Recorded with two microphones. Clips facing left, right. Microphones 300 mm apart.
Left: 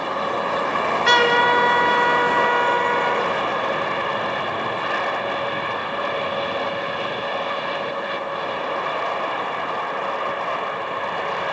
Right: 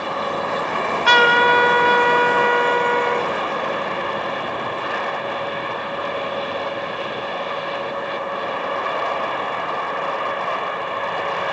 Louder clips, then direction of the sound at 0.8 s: Right 1 dB; 25° left (ahead or behind).